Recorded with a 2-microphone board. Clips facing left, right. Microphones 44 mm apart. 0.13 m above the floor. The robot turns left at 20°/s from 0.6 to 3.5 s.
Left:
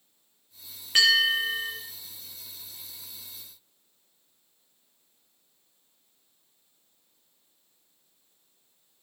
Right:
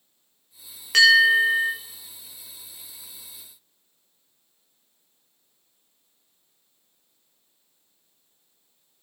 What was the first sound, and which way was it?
A bell, 65° right (ahead or behind).